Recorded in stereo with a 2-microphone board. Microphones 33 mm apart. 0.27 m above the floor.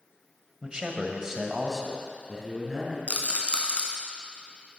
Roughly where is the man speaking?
Right.